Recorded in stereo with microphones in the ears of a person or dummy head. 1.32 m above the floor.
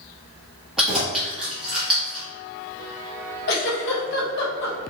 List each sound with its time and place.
0.8 s keys jangling: centre (ahead or behind), 1.4 m
3.5 s a giggle: 60° left (ahead or behind), 1.1 m